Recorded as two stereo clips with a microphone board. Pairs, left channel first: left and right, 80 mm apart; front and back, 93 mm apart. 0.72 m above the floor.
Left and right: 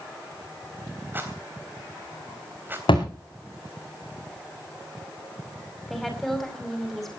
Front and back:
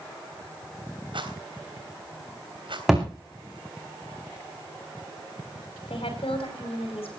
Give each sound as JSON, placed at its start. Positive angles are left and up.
{"t": 1.1, "sound": "a rattle", "azimuth_deg": -155, "distance_m": 3.5}
{"t": 2.9, "sound": "a thud", "azimuth_deg": 95, "distance_m": 5.0}
{"t": 5.9, "sound": "a woman speaking", "azimuth_deg": 5, "distance_m": 5.0}